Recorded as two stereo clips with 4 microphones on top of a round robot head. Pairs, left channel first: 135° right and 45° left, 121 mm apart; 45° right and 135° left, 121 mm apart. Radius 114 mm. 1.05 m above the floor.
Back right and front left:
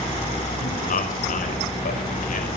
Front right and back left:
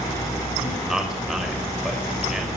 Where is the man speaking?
140° right, 5.5 m.